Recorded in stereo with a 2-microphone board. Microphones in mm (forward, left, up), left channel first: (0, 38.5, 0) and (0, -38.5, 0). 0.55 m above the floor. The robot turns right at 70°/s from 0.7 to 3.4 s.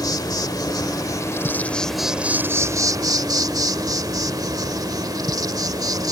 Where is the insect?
90° left; by 6.1 s 80° right.